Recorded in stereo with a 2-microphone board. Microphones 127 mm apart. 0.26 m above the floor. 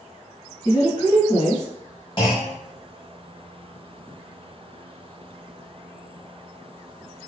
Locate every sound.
0.7 s a woman speaking: 30° left (ahead or behind), 1.4 m
2.2 s a clunk: 40° left (ahead or behind), 1.5 m